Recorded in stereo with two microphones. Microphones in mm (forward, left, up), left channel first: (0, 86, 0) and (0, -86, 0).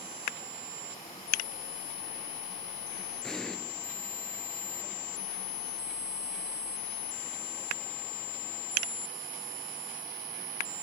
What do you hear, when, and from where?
3.2 s an explosion: 5° left (ahead or behind), 4 m